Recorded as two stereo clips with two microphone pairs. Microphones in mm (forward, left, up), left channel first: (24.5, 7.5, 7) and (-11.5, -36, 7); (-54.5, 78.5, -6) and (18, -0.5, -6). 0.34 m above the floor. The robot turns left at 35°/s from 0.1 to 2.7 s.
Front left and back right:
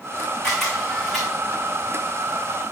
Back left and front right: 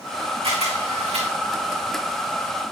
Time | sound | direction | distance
0.4 | a camera shutter | 25° right | 5.5 m